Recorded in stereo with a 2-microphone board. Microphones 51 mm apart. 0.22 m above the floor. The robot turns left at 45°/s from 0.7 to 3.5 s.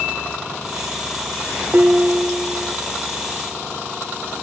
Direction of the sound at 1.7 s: 120° right.